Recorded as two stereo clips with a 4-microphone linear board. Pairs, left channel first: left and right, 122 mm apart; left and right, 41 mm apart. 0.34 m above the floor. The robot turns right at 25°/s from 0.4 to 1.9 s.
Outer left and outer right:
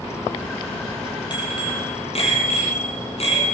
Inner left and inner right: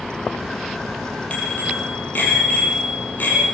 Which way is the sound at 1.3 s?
40° left (ahead or behind).